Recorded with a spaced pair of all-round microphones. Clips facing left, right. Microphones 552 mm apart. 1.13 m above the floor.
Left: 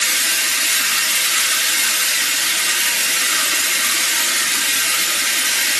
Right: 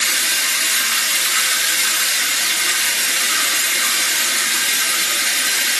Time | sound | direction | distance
0.0 | running water | 50° left (ahead or behind) | 2 m